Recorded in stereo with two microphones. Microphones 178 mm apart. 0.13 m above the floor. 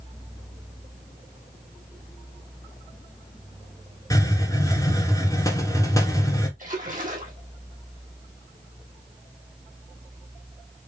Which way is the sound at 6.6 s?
50° right (ahead or behind).